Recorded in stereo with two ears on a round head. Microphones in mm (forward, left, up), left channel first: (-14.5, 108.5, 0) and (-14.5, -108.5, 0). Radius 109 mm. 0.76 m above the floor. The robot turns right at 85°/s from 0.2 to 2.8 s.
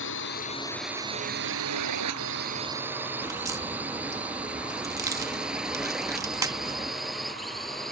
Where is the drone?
55° left (ahead or behind); by 7.9 s centre (ahead or behind).